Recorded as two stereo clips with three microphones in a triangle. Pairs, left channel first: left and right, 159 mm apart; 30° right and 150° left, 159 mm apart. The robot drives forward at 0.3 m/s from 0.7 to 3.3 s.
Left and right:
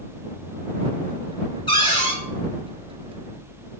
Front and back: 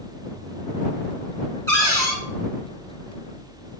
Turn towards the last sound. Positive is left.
turn(degrees=65)